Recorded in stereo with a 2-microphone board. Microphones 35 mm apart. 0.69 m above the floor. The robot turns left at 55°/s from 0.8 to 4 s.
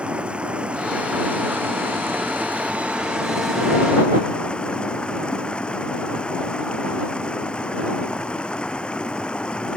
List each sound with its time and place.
0.0 s running water: 30° right; by 9.8 s 150° left